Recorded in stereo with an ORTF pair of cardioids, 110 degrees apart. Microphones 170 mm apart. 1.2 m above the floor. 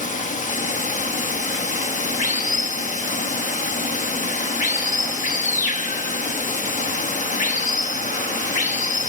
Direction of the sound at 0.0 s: 55° left.